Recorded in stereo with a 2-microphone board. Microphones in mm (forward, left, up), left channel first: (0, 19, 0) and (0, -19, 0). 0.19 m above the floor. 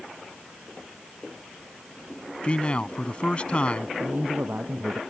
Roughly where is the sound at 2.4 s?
Left.